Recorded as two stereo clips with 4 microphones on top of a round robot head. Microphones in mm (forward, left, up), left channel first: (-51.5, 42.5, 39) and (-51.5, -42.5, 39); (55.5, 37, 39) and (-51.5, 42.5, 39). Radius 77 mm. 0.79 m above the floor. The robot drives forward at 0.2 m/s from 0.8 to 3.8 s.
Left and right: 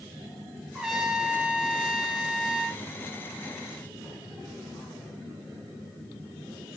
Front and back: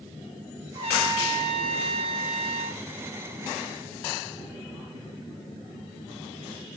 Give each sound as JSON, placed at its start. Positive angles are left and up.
{"t": 0.8, "sound": "a trumpet", "azimuth_deg": -175, "distance_m": 1.8}